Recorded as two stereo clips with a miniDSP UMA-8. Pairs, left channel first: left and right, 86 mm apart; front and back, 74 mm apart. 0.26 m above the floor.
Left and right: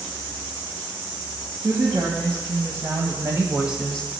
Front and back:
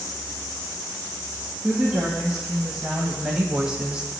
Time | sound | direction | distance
1.6 | a woman speaking | 95° right | 3.5 m